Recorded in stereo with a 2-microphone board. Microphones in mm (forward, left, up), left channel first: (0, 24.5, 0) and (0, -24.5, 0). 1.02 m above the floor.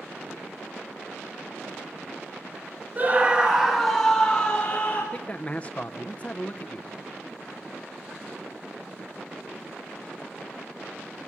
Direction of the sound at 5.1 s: 25° left (ahead or behind).